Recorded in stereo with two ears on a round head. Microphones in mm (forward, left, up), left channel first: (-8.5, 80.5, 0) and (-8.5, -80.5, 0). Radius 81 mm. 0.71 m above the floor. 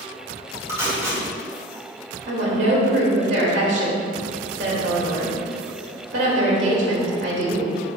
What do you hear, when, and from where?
0.7 s tape being pulled: 15° right (ahead or behind), 3 m
2.3 s a woman speaking: 65° right (ahead or behind), 3 m